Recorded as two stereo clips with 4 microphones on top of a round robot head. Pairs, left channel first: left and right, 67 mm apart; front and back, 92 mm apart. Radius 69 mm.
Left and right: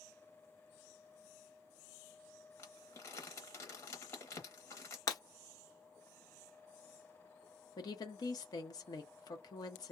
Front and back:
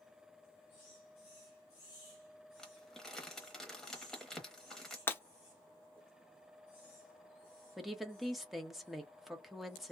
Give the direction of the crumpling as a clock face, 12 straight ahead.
9 o'clock.